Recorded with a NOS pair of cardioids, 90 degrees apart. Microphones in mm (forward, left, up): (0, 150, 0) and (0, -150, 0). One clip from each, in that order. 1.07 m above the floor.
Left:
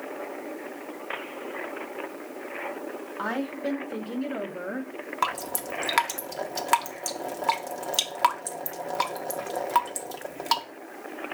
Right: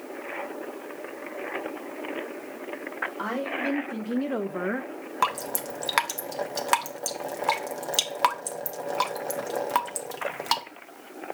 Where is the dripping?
5° right, 0.6 m.